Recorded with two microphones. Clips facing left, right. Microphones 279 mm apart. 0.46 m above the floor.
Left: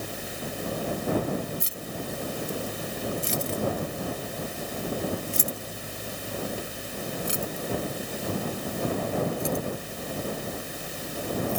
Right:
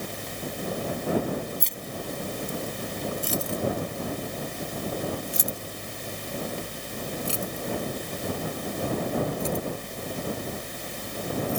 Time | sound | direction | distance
1.6 | keys jangling | 5° left (ahead or behind) | ?